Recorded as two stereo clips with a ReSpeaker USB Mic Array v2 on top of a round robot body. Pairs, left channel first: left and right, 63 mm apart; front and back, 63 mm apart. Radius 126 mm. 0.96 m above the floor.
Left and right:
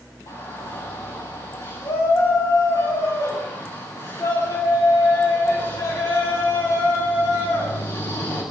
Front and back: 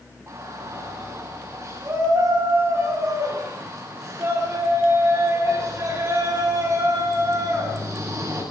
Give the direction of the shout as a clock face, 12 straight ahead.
8 o'clock.